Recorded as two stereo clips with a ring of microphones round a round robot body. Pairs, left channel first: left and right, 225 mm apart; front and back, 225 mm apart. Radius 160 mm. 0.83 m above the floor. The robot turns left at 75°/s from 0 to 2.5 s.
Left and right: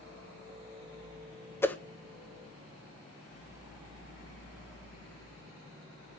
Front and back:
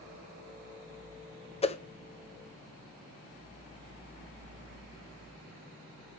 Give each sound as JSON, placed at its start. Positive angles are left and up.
{"t": 1.6, "sound": "a whoosh", "azimuth_deg": 25, "distance_m": 0.9}